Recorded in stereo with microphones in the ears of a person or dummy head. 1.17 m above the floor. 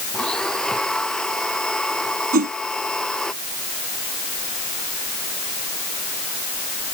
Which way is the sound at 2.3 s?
50° right (ahead or behind).